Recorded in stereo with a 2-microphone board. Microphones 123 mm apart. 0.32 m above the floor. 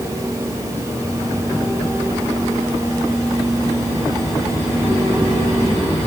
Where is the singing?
I don't hear singing.